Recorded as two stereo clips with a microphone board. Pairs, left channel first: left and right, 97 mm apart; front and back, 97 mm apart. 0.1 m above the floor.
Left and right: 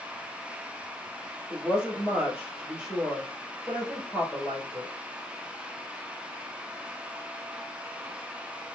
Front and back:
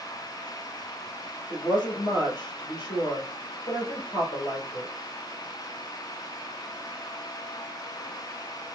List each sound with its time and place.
1.5 s a woman speaking: 20° right, 2.0 m